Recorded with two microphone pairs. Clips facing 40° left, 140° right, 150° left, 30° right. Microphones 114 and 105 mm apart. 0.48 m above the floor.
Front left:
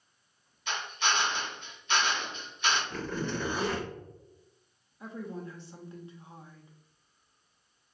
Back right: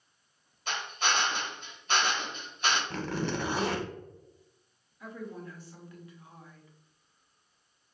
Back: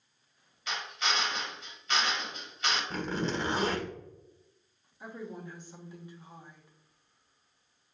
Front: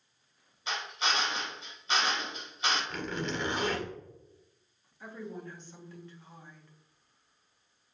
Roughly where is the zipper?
Behind right.